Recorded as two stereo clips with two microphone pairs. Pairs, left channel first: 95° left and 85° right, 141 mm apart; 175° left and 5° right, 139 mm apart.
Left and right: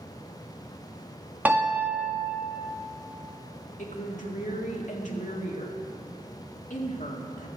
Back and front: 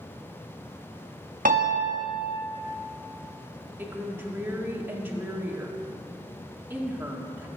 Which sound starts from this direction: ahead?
A piano, at 1.4 s.